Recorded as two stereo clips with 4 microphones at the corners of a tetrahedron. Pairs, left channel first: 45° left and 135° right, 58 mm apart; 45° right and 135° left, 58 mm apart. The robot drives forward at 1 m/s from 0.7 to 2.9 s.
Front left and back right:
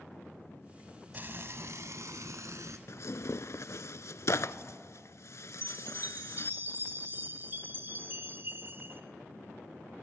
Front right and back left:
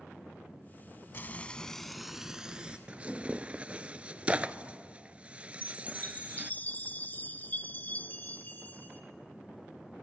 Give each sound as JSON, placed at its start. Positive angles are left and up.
{"t": 1.1, "sound": "frying", "azimuth_deg": -85, "distance_m": 0.9}
{"t": 2.9, "sound": "tearing paper", "azimuth_deg": 70, "distance_m": 0.5}
{"t": 5.6, "sound": "a chime", "azimuth_deg": -95, "distance_m": 1.5}